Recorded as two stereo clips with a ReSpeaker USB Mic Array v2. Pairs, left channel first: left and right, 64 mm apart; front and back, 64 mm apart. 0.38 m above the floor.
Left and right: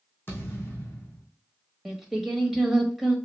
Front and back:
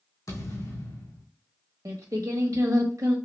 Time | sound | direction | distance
0.3 | a thud | 30° left | 3 m
1.9 | singing | 175° right | 1.0 m